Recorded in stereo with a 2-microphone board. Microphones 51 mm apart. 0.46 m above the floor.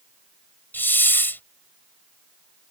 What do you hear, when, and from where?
0.7 s a hiss: 40° left (ahead or behind)